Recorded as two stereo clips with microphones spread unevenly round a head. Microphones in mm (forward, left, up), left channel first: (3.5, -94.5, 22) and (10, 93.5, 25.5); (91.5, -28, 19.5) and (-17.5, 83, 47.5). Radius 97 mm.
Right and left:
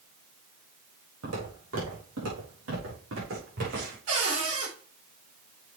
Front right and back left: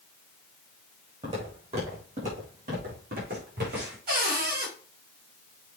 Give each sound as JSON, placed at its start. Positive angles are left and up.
{"t": 1.2, "sound": "footsteps", "azimuth_deg": 85, "distance_m": 5.0}
{"t": 4.1, "sound": "a cupboard door", "azimuth_deg": 115, "distance_m": 5.0}